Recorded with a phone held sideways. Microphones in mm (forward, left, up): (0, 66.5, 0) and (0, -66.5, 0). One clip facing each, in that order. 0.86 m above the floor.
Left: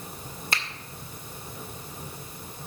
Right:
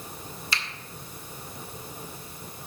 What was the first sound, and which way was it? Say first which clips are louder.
A finger snap: left 2 dB; 50° left (ahead or behind).